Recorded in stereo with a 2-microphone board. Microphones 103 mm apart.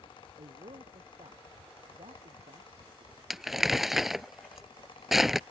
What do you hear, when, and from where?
0.4 s a man speaking: 75° right (ahead or behind)
3.3 s crumpling: 5° right (ahead or behind)